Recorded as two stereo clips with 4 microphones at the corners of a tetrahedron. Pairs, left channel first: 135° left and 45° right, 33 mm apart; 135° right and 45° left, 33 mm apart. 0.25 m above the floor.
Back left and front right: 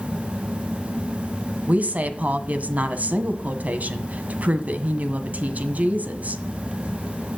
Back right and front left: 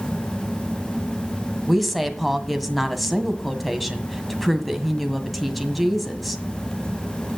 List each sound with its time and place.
1.7 s a woman speaking: 40° right, 1.6 m